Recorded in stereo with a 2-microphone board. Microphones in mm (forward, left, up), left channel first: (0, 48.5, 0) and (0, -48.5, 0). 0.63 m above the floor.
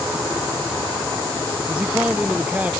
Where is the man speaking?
15° right (ahead or behind).